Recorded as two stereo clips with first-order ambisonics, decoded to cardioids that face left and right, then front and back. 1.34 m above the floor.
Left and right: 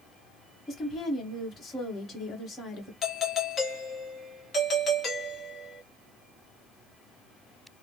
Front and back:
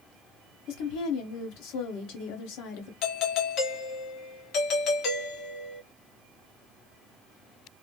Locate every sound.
0.7 s a woman speaking: 20° left, 1.3 m
3.0 s a doorbell: 30° left, 0.8 m